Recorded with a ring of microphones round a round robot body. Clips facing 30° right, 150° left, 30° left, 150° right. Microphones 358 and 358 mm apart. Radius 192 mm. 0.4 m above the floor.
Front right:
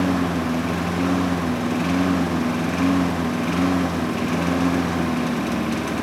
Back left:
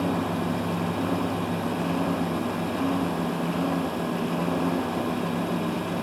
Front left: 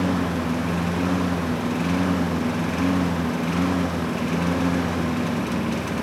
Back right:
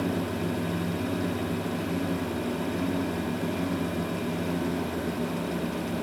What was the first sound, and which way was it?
A lawn mower, 20° left.